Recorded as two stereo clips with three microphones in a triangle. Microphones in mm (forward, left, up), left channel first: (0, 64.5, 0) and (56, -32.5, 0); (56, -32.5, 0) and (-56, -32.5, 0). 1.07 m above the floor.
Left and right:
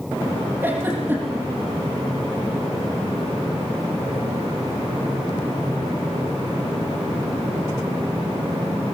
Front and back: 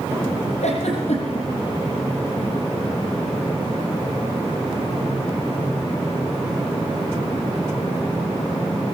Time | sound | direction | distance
0.6 | a giggle | 10° left | 9.5 m